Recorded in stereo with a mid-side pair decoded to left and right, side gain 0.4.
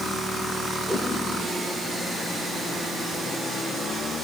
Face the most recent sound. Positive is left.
turn(degrees=-15)